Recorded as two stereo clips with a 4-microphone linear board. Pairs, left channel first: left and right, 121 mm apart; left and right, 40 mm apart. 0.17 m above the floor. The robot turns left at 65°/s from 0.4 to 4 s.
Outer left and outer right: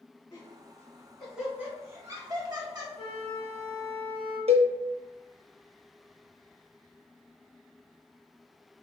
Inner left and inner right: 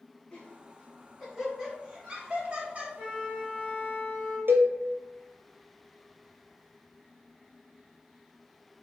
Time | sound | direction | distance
0.3 | laughter | 30° left (ahead or behind) | 1.3 m
3.0 | a flute | 80° right | 1.9 m
4.5 | a cowbell | 60° right (ahead or behind) | 0.6 m